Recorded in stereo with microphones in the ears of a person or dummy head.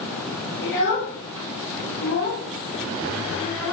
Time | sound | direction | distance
0.6 | a child speaking | 55° left (ahead or behind) | 1.1 m